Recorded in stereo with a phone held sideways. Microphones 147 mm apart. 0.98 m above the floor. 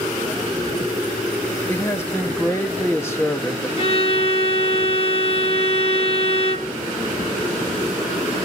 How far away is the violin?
About 1.1 m.